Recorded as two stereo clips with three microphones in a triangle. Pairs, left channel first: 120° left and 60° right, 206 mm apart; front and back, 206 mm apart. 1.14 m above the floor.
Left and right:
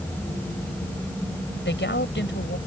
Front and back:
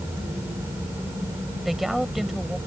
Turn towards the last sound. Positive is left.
turn(degrees=90)